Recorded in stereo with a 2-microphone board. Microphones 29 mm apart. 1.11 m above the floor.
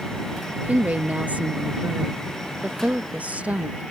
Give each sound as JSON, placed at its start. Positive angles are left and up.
{"t": 0.6, "sound": "a woman speaking", "side_deg": -60}